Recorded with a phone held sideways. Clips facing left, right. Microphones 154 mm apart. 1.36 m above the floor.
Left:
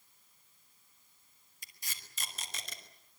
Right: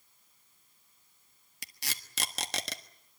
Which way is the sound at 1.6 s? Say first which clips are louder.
Right 8 dB; 80° right.